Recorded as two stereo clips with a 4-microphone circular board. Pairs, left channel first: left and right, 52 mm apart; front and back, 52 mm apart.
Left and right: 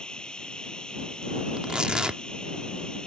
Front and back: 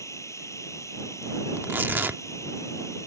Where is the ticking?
No ticking in this recording.